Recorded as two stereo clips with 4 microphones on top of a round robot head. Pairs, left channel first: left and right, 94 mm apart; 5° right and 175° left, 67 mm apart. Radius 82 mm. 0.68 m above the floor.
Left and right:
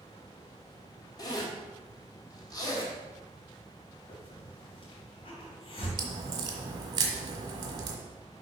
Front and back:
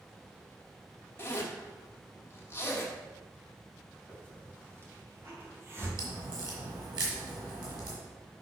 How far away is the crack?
About 1.3 m.